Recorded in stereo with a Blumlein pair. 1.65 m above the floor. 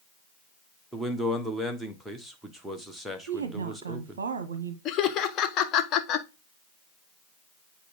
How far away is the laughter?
About 1.2 m.